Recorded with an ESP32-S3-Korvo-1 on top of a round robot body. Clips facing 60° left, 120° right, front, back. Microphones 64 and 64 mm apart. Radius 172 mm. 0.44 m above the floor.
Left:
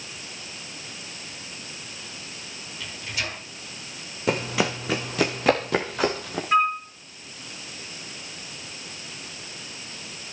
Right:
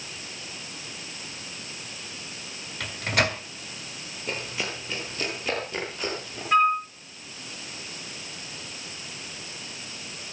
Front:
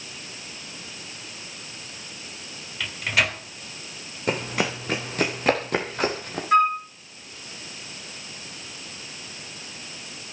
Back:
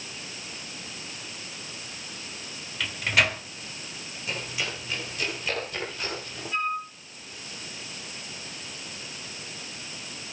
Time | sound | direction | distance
2.8 | a microwave | 90° right | 2.5 m
4.3 | running footsteps | 45° left | 2 m
6.5 | a flute | 25° right | 3 m